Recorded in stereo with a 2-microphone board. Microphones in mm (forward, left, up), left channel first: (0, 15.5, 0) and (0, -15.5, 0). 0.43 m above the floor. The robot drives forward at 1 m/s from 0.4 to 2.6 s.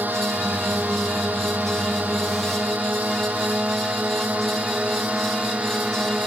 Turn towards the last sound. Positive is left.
turn(degrees=-45)  # may be behind; listen again after turning